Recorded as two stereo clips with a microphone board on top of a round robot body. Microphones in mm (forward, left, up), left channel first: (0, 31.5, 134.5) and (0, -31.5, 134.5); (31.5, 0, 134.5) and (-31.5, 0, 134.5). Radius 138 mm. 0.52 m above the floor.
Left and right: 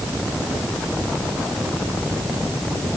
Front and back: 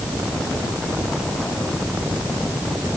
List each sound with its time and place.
Only background noise.